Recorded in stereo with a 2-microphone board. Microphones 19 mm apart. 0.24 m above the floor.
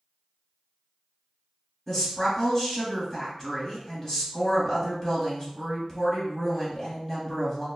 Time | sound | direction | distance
1.9 | a woman speaking | 25° left (ahead or behind) | 1.7 m